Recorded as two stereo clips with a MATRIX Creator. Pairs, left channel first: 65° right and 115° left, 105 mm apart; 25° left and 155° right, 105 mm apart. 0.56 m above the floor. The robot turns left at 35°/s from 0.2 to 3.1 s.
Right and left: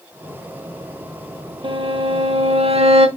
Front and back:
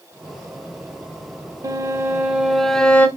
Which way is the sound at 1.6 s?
145° left.